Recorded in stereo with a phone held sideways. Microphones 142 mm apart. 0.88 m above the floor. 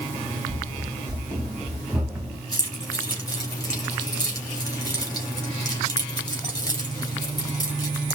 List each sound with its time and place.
0.5 s running footsteps: 25° right (ahead or behind), 2.5 m; by 2.4 s centre (ahead or behind), 2.5 m
2.5 s keys jangling: 25° left (ahead or behind), 3 m